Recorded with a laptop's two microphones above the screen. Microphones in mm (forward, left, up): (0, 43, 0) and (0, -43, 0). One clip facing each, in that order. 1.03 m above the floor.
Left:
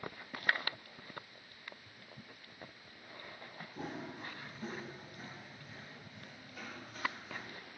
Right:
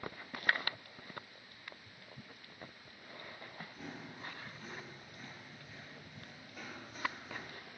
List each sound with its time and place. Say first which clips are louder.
3.8 s running footsteps: left 7 dB; 40° left (ahead or behind), 1.5 m; by 7.5 s 15° right (ahead or behind), 2 m